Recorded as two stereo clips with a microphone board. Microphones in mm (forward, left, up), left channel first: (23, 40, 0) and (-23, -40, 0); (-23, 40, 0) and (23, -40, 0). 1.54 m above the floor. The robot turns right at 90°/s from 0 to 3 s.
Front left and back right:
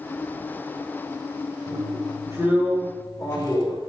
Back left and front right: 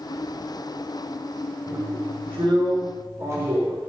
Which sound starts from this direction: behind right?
A drill, at 1.7 s.